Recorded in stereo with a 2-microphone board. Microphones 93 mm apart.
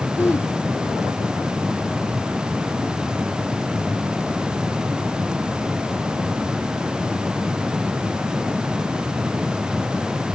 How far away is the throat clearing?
About 2.5 m.